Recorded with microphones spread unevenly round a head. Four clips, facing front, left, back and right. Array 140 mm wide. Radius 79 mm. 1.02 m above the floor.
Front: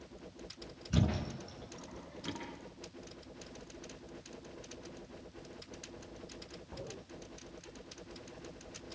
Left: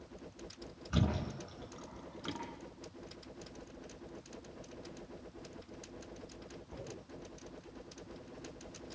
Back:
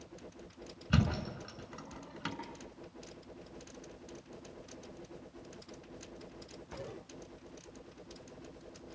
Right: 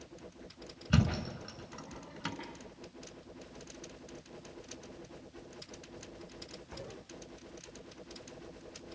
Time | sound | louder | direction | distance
0.9 | a thud | right 3 dB, back 1 dB | 135° right | 6.5 m